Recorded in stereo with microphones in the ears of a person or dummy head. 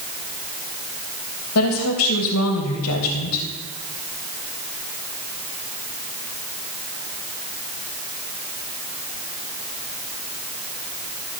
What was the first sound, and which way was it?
A woman speaking, 75° left (ahead or behind).